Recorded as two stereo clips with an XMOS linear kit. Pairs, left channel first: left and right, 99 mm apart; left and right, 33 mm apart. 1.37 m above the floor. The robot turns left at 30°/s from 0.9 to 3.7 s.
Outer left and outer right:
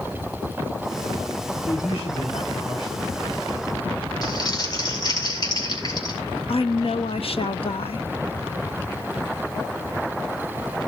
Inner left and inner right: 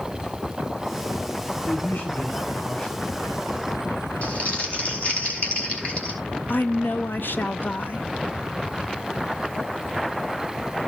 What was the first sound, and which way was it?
A man speaking, 90° left.